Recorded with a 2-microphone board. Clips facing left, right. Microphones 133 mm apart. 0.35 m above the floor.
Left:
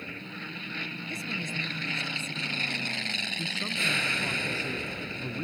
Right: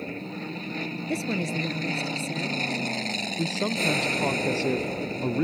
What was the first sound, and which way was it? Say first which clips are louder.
An aircraft: right 7 dB; 35° right (ahead or behind).